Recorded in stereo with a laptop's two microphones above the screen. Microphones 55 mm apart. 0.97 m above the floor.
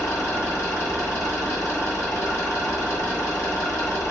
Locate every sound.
0.0 s an engine running: 75° left (ahead or behind), 1.7 m